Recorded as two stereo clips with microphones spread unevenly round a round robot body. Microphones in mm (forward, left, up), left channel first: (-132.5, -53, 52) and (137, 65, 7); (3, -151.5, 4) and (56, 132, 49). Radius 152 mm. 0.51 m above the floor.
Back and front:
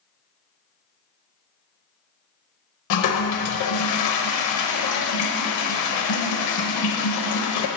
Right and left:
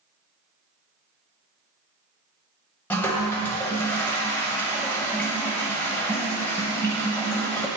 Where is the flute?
I don't hear a flute.